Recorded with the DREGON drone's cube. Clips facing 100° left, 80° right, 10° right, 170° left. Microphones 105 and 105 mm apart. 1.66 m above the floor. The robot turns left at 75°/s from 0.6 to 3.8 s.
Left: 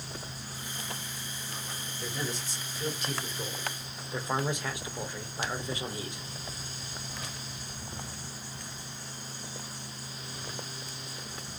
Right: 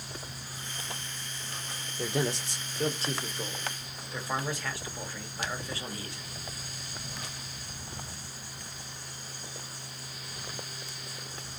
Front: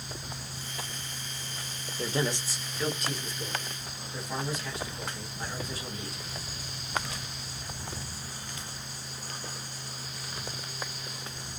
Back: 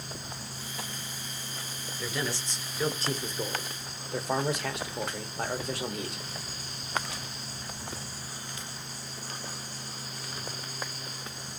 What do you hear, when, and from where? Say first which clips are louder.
2.0 s a man speaking: right 7 dB, front 4 dB; 55° right, 0.8 m; by 6.2 s 170° left, 0.8 m